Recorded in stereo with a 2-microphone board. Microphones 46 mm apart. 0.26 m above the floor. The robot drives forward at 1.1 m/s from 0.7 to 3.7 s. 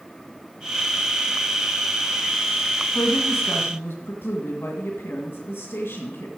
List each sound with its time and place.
3.0 s a woman speaking: 55° left (ahead or behind), 1.8 m; by 6.3 s 50° left (ahead or behind), 2.0 m